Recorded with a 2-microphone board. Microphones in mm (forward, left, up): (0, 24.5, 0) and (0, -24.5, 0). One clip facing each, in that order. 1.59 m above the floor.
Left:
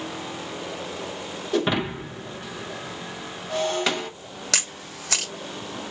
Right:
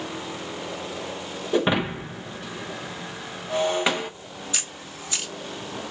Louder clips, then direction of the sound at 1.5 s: Right 1 dB; 15° right (ahead or behind).